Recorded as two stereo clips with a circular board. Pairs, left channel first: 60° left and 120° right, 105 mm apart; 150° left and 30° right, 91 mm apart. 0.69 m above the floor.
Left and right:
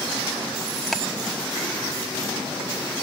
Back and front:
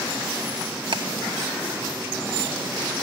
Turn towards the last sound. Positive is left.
turn(degrees=-30)